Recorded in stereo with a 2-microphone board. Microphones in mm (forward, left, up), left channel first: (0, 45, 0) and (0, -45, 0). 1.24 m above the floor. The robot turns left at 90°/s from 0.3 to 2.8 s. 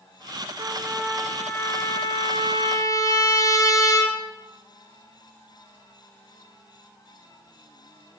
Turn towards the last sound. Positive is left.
turn(degrees=45)